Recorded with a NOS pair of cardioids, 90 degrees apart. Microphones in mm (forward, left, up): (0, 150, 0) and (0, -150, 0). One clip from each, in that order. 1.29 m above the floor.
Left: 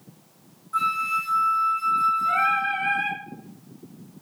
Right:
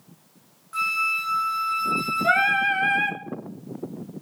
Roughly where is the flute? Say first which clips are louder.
Even; ahead right.